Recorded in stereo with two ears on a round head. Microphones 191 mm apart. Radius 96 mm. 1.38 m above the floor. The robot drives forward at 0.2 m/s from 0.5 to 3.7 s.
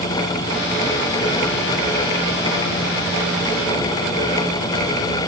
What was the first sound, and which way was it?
Only background noise.